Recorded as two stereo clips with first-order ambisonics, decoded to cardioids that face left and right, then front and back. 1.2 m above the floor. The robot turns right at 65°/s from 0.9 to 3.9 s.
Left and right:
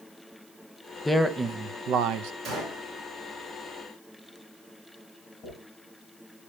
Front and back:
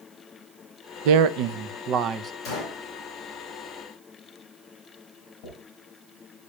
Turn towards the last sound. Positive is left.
turn(degrees=15)